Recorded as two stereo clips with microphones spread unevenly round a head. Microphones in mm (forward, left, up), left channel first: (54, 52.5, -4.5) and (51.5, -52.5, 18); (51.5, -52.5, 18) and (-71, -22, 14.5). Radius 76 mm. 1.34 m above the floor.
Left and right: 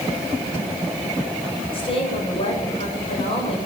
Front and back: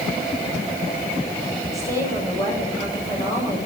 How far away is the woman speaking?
About 7 m.